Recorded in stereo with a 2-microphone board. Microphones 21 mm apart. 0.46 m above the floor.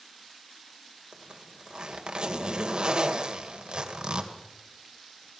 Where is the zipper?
45° right (ahead or behind), 2.0 m.